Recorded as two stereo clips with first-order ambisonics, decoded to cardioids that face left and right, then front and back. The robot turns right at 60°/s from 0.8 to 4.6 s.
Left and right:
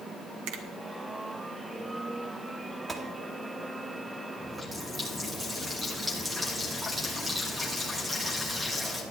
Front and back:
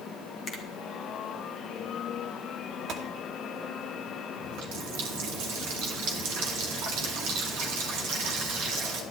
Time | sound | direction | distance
0.5 | a finger snap | 65° right | 1.6 m
2.9 | a gunshot | 170° right | 1.1 m
4.4 | a running tap | 175° left | 2 m